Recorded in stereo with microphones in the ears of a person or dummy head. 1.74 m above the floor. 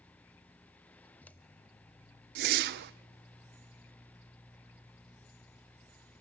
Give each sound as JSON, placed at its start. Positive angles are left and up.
{"t": 0.0, "sound": "a fan", "side_deg": 10, "distance_m": 0.9}
{"t": 2.4, "sound": "a whoosh", "side_deg": -60, "distance_m": 0.5}